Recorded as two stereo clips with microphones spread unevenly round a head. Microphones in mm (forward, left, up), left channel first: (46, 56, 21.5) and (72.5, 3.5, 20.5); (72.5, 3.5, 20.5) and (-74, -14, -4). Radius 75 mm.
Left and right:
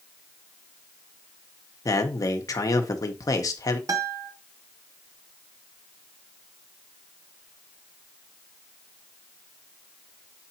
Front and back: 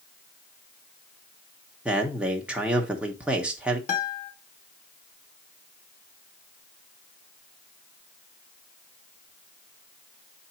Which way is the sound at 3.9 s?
40° right.